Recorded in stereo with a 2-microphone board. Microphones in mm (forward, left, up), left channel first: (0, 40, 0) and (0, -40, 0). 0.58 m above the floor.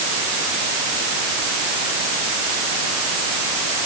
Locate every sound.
Only background noise.